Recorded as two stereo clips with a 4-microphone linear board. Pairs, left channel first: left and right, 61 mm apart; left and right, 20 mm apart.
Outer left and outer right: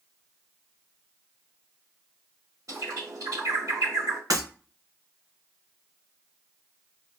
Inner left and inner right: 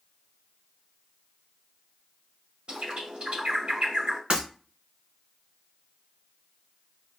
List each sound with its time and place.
2.7 s a bird: 65° right (ahead or behind), 2.0 m
4.3 s breaking glass: 75° right (ahead or behind), 2.5 m